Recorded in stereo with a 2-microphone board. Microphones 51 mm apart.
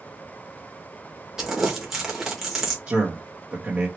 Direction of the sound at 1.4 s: 10° right (ahead or behind).